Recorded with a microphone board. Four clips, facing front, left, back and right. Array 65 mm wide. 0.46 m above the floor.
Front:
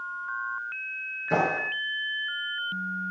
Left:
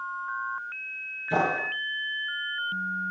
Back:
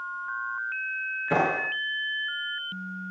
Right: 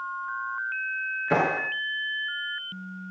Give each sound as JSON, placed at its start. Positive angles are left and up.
{"t": 1.3, "sound": "a clap", "azimuth_deg": -110, "distance_m": 7.0}